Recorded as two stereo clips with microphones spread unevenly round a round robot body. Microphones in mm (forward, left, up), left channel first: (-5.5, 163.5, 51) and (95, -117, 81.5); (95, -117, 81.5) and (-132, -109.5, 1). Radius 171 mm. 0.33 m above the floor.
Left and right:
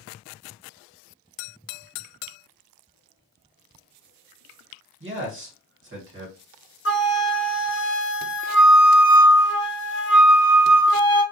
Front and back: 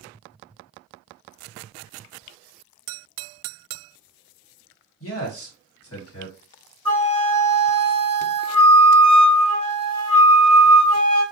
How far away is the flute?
About 0.8 m.